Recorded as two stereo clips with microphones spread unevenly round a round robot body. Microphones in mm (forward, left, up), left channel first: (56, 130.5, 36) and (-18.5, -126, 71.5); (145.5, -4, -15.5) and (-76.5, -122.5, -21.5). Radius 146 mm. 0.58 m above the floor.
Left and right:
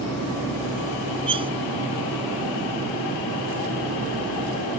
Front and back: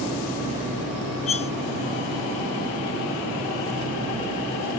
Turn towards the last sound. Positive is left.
turn(degrees=-35)